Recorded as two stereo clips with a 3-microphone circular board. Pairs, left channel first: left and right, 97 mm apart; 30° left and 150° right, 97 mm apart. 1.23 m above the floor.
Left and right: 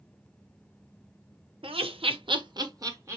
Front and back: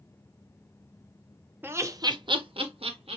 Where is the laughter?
80° right, 0.8 m; by 3.2 s 150° right, 1.1 m.